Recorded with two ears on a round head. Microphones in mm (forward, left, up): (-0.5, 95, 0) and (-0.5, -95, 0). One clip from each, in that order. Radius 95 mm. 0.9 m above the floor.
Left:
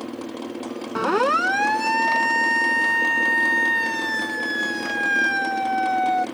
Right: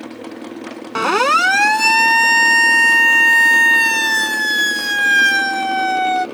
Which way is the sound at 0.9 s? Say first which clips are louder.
Right 6 dB; 65° right (ahead or behind).